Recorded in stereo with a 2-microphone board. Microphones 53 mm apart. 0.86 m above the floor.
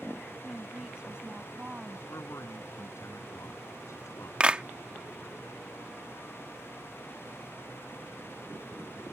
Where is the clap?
20° right (ahead or behind).